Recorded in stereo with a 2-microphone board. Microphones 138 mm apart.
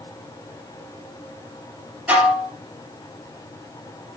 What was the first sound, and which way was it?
Dishes clattering, 15° right (ahead or behind).